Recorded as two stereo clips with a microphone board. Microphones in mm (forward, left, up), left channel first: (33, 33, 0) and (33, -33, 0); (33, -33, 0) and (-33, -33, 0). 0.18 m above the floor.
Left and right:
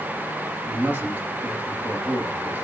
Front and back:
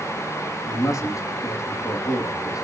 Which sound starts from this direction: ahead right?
A man speaking, at 0.7 s.